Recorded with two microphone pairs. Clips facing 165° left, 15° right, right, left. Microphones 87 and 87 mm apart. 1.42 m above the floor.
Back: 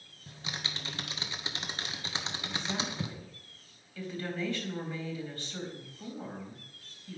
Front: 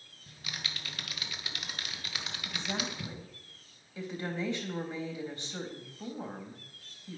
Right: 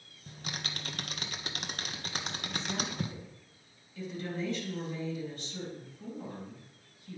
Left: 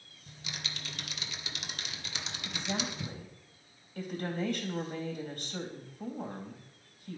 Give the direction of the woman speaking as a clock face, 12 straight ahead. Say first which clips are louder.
Even, left 3 dB; 10 o'clock.